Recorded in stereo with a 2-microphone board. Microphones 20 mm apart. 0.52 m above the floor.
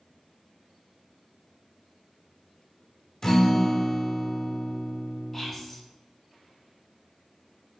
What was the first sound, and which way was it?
A guitar, 20° left (ahead or behind).